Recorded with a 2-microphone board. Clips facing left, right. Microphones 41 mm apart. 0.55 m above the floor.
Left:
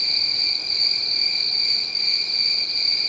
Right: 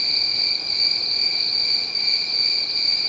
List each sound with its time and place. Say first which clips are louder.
0.0 s an insect: even; 10° right (ahead or behind), 3 m